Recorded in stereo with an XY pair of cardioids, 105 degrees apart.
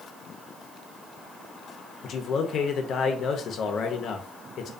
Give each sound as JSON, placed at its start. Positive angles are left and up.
{"t": 2.0, "sound": "a man speaking", "azimuth_deg": 60, "distance_m": 0.6}